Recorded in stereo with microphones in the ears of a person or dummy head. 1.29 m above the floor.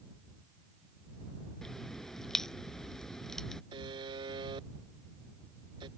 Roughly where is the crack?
Centre.